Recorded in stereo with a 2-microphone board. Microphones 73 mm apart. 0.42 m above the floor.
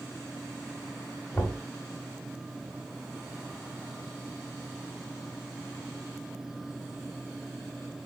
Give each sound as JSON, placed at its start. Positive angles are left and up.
{"t": 1.3, "sound": "knocking", "side_deg": 20, "distance_m": 1.4}